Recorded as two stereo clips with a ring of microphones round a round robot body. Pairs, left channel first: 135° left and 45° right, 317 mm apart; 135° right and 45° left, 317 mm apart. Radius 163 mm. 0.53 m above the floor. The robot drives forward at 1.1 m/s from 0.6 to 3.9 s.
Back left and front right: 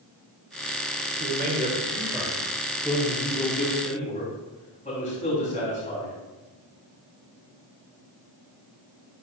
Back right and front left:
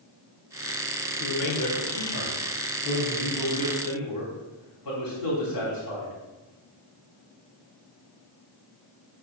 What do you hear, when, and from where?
1.2 s a man speaking: 95° right, 1.7 m; by 6.1 s 155° right, 3.5 m